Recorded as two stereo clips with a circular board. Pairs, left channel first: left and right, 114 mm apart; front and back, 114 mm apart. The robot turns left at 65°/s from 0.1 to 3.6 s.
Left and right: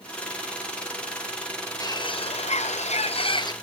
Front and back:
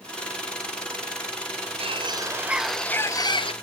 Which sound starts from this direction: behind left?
A bird, at 1.8 s.